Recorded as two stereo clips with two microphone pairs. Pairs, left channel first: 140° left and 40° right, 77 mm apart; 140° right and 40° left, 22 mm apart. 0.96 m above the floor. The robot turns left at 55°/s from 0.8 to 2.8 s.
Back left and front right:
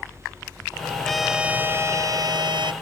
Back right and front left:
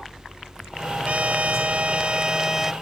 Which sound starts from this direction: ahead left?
A trumpet, at 1.1 s.